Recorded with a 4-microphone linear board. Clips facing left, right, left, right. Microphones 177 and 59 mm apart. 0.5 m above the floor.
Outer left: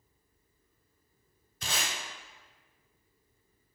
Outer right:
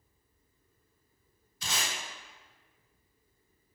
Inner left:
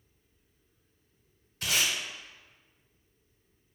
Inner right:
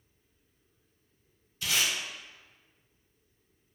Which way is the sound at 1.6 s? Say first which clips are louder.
Outer left 1 dB, even; 60° left (ahead or behind).